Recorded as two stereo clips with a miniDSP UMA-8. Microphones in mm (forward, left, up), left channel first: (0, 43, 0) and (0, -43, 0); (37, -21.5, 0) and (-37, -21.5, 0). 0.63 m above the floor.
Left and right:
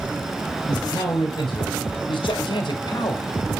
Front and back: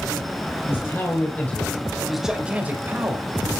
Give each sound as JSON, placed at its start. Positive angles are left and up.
{"t": 0.7, "sound": "a man speaking", "azimuth_deg": 55, "distance_m": 3.5}